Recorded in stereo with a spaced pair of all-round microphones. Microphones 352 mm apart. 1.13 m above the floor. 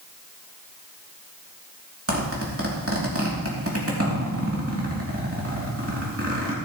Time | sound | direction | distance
2.1 | a zipper | 40° right (ahead or behind) | 3 m